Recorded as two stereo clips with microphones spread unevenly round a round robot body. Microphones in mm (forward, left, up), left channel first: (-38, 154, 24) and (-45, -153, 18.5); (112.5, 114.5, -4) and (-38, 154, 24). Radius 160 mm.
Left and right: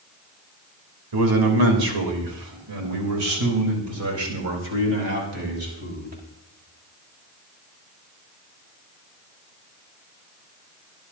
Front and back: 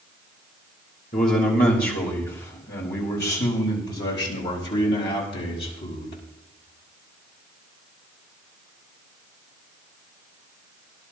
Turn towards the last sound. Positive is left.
turn(degrees=-25)